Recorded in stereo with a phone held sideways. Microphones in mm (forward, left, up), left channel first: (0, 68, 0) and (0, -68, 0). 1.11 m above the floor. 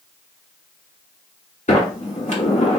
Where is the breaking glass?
I don't hear breaking glass.